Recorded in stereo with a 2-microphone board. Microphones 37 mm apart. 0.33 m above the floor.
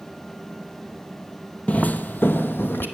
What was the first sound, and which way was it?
Footsteps, 40° left (ahead or behind).